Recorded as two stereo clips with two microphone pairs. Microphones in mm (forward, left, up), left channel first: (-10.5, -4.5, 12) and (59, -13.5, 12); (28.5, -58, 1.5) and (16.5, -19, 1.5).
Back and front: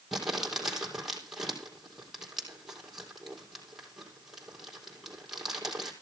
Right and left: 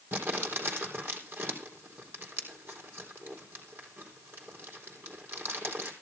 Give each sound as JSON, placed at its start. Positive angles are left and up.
{"t": 0.1, "sound": "crumpling", "azimuth_deg": 80, "distance_m": 4.0}